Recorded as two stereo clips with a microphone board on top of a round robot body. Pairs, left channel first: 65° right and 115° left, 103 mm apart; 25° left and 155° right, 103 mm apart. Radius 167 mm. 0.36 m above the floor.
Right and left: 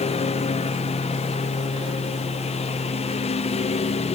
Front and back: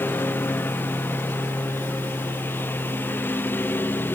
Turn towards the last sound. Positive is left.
turn(degrees=-50)